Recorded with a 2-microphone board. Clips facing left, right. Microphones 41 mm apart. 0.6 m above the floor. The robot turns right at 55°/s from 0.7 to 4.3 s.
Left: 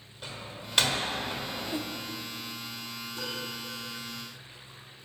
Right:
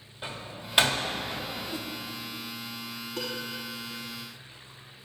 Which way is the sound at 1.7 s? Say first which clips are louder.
Left 2 dB; 30° left (ahead or behind).